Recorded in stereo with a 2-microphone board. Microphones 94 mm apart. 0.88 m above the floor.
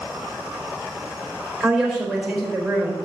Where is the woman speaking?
5° left (ahead or behind), 4.5 m.